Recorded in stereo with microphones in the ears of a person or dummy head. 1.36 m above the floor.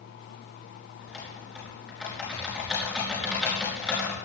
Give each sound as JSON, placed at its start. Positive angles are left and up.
{"t": 1.0, "sound": "typing on a keyboard", "side_deg": 0, "distance_m": 4.5}